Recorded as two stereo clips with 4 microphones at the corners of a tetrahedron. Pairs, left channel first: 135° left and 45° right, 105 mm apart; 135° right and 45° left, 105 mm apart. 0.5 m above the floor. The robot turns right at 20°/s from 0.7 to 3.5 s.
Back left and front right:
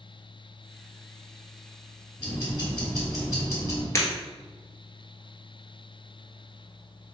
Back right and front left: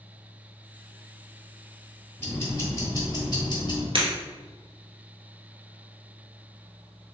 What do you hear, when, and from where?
2.2 s ticking: 160° left, 1.7 m; by 3.9 s 170° right, 1.7 m
4.0 s breaking glass: 75° left, 1.3 m